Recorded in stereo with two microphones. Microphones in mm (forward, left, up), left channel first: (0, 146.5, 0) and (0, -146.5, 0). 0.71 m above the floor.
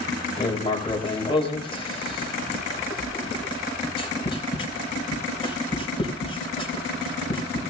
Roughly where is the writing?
Centre.